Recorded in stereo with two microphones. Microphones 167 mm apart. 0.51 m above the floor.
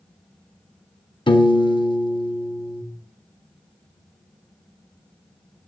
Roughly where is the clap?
I don't hear a clap.